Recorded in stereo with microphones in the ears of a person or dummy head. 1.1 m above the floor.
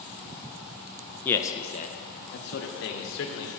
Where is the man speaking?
10° left (ahead or behind), 0.7 m; by 3.5 s 70° left (ahead or behind), 1.6 m.